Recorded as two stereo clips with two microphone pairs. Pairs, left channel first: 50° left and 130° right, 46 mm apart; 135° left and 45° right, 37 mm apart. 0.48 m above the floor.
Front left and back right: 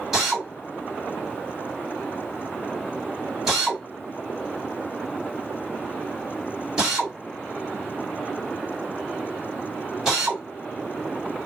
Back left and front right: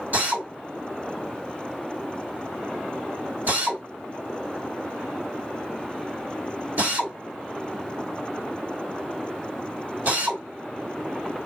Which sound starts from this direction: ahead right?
A drill, at 0.1 s.